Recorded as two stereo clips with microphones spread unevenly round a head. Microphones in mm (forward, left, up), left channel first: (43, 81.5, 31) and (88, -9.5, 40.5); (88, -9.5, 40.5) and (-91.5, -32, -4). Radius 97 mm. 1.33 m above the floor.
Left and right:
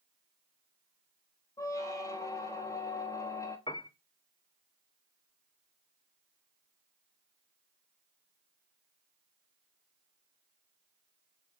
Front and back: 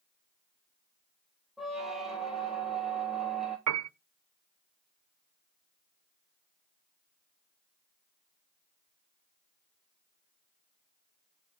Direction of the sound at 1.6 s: 75° left.